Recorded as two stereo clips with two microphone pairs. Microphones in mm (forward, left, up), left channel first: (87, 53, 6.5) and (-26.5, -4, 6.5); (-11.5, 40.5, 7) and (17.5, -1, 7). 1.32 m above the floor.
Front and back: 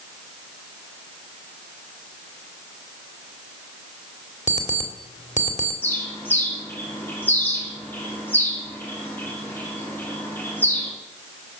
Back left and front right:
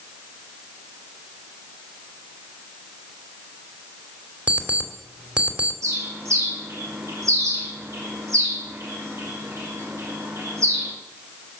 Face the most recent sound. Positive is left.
turn(degrees=-50)